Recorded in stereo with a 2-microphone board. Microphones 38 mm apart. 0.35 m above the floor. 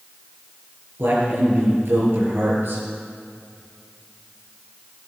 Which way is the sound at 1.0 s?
70° right (ahead or behind).